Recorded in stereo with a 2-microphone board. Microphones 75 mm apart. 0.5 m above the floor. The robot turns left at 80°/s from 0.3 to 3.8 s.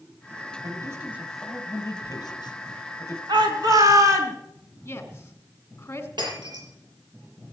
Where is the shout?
90° right, 4.5 m; by 4.3 s 130° right, 4.5 m.